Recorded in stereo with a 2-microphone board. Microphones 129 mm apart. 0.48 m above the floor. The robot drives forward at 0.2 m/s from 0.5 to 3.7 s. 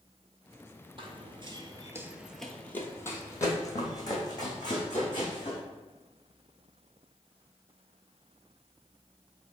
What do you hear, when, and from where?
1.0 s running footsteps: 45° right (ahead or behind), 0.8 m; by 5.6 s 35° left (ahead or behind), 2 m